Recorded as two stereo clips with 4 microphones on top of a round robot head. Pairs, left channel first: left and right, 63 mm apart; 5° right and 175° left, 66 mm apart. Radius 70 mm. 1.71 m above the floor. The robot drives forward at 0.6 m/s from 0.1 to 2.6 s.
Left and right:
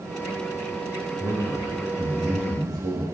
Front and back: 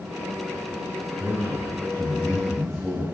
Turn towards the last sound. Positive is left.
turn(degrees=-100)